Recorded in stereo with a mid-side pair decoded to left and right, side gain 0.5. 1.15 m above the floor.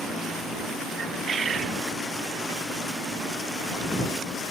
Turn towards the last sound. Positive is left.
turn(degrees=-45)